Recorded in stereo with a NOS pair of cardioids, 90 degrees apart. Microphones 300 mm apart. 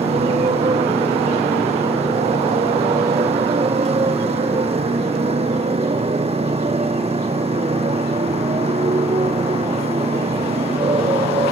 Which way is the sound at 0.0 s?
20° right.